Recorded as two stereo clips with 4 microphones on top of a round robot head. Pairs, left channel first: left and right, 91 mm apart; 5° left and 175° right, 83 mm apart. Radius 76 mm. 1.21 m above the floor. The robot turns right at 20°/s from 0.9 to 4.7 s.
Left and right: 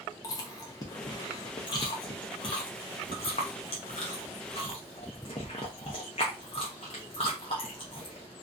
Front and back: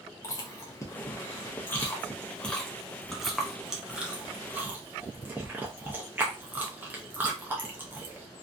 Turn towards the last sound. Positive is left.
turn(degrees=125)